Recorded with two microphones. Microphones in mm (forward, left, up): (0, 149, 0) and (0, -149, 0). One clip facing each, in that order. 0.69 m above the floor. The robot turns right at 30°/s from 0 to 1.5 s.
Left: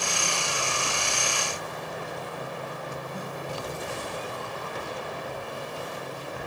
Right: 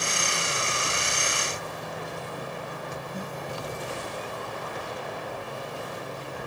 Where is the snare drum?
15° right (ahead or behind), 9 m.